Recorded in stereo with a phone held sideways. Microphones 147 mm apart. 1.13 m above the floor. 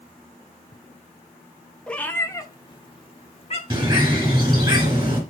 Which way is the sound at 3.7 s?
30° right (ahead or behind).